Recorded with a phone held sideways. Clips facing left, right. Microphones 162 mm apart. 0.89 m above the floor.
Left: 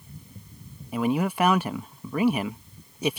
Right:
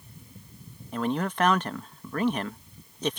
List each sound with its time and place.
0.9 s a man speaking: 10° left (ahead or behind)